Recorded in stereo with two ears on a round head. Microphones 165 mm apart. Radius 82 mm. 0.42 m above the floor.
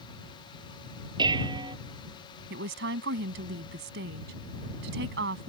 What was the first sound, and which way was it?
Dishes clattering, 25° right (ahead or behind).